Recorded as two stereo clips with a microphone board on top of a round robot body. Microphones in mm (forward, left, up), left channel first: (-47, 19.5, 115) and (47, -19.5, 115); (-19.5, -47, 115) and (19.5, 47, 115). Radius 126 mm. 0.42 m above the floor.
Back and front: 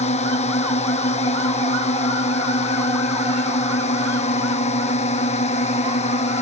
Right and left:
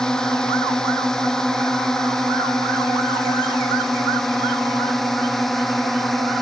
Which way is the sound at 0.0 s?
165° left.